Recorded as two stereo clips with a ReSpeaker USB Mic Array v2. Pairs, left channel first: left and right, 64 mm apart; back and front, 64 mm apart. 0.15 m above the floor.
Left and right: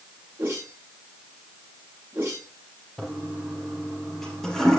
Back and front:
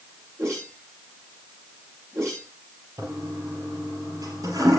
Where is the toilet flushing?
5° left, 4 m.